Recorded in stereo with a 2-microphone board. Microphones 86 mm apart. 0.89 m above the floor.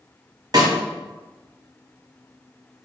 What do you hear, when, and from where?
0.5 s a snare drum: 55° right (ahead or behind), 1.4 m